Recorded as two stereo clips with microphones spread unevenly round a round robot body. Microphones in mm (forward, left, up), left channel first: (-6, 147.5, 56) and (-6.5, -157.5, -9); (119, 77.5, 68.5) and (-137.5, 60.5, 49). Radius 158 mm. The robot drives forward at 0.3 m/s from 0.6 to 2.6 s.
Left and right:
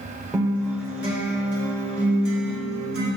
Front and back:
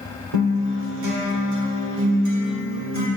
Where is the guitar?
Straight behind, 1.1 m.